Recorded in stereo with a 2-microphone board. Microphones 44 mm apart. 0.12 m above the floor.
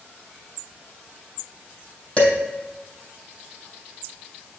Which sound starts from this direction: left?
Dishes clattering, at 2.2 s.